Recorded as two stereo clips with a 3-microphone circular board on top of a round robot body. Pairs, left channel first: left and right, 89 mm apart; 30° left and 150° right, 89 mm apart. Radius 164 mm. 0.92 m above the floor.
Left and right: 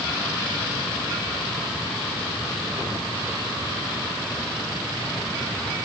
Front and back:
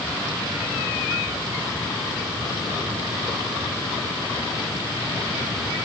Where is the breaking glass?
No breaking glass in this recording.